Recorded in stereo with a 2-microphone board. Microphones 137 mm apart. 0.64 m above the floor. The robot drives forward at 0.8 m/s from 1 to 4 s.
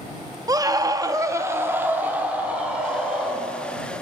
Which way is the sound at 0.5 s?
25° right (ahead or behind).